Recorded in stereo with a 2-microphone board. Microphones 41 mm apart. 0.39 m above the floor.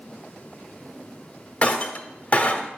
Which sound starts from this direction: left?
Breaking glass, at 1.6 s.